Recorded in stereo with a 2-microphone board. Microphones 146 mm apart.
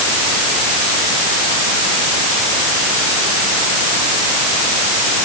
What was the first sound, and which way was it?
Only background noise.